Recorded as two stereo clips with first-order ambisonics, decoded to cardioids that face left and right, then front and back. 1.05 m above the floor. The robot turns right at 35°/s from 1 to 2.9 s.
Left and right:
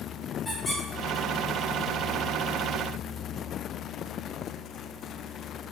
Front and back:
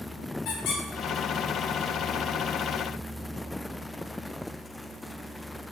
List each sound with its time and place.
0.5 s a squeak: 10° left, 1.1 m